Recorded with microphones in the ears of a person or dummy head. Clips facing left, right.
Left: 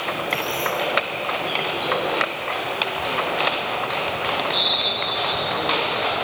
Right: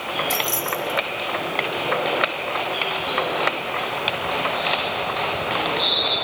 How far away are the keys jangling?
About 5 m.